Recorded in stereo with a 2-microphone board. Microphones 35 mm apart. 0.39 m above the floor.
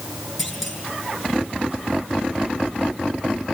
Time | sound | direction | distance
0.4 | a clunk | centre (ahead or behind) | 7.5 m